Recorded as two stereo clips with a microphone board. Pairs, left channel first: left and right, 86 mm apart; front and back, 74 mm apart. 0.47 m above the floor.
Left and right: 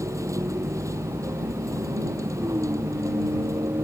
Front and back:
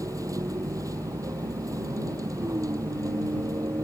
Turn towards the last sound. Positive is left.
turn(degrees=-140)